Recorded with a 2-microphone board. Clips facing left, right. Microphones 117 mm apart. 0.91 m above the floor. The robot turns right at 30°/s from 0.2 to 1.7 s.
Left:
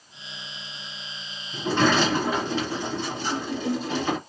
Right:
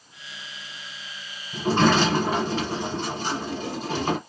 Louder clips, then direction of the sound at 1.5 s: Right 2 dB; 40° right (ahead or behind).